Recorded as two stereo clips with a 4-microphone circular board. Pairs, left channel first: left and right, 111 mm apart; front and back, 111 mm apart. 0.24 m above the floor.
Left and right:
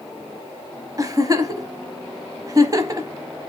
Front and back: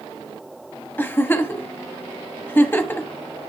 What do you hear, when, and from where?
1.0 s a giggle: 60° right, 0.9 m